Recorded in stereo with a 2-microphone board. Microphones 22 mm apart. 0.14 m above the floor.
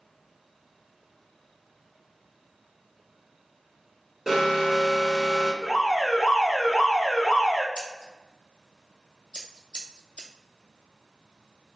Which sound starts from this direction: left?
Scissors, at 7.8 s.